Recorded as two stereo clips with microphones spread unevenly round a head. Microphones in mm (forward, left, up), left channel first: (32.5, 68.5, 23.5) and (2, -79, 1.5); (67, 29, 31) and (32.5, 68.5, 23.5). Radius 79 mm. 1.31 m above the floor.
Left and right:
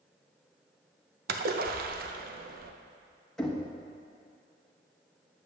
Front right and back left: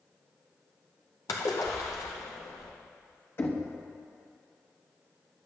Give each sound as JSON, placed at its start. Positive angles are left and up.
{"t": 1.3, "sound": "a splash", "azimuth_deg": -80, "distance_m": 0.7}
{"t": 3.4, "sound": "knocking", "azimuth_deg": -5, "distance_m": 1.2}